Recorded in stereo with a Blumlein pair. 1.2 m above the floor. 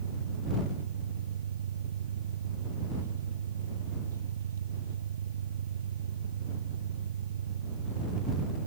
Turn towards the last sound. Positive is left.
turn(degrees=-65)